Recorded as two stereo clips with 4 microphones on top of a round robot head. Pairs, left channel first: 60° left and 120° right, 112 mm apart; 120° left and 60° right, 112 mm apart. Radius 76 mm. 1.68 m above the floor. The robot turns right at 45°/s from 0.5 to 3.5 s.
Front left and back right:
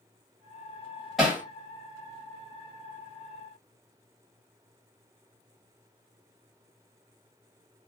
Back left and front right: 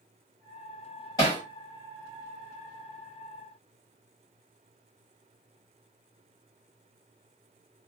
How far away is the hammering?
About 1.3 m.